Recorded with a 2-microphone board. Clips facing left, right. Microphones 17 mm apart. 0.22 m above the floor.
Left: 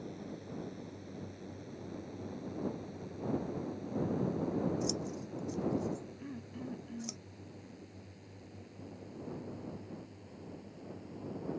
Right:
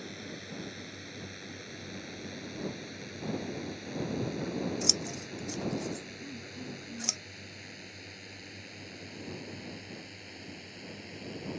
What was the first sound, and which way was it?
A drone, 50° right (ahead or behind).